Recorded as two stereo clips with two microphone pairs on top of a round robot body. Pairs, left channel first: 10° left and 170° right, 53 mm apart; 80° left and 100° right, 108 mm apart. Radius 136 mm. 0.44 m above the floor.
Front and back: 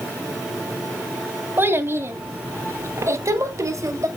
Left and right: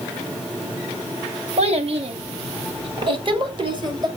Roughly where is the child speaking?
Behind right.